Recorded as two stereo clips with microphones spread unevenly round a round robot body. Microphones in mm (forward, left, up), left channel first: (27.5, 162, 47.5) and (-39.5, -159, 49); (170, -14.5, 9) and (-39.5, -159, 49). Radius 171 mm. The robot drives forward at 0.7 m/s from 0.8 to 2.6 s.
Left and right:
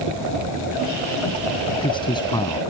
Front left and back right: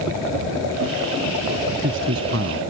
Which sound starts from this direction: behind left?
A man speaking, at 1.7 s.